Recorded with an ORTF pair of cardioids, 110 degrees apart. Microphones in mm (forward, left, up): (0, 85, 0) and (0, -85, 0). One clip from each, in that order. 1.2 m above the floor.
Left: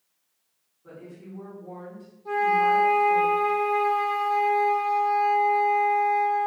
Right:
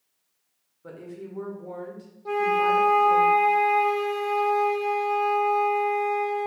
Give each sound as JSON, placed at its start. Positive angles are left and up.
{"t": 0.8, "sound": "a woman speaking", "azimuth_deg": -65, "distance_m": 1.1}
{"t": 2.2, "sound": "a flute", "azimuth_deg": -40, "distance_m": 0.9}